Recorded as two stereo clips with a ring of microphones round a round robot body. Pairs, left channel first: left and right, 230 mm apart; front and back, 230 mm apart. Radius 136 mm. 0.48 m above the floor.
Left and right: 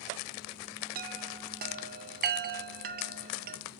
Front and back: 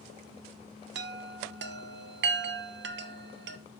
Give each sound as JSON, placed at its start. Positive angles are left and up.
{"t": 0.9, "sound": "a chime", "azimuth_deg": -140, "distance_m": 0.6}